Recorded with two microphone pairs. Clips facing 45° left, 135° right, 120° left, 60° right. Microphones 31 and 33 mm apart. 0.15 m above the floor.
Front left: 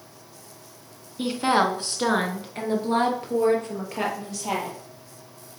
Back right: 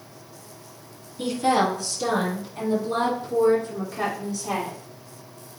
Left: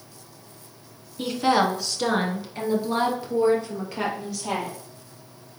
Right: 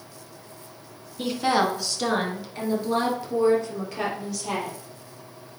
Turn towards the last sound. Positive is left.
turn(degrees=40)